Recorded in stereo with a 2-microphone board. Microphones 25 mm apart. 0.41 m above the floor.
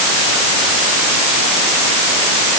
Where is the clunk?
I don't hear a clunk.